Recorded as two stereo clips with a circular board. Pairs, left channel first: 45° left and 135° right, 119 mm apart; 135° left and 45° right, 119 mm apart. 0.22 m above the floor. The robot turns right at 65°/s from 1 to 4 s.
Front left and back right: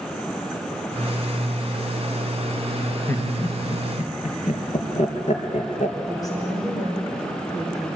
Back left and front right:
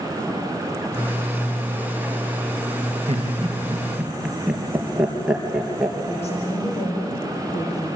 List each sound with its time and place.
3.1 s laughter: 25° right, 4 m; by 6.0 s 35° left, 4 m
6.1 s a woman speaking: 105° left, 8.5 m